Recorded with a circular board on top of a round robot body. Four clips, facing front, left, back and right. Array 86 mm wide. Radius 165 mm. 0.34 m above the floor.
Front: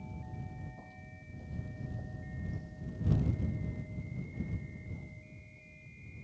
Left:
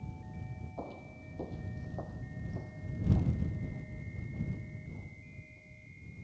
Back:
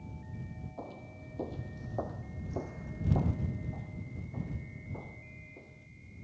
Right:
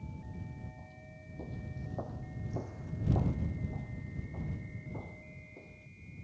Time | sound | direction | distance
0.8 | footsteps | 125° left | ?